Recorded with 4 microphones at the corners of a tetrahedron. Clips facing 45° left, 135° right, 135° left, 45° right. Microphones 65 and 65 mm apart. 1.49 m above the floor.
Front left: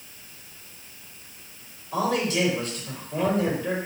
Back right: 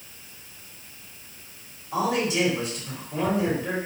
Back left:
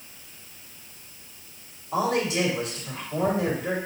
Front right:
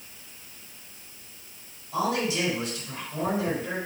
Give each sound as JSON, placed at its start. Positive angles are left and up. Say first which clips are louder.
{"t": 1.9, "sound": "a man speaking", "louder": "even, back left 2 dB", "azimuth_deg": 145, "distance_m": 4.0}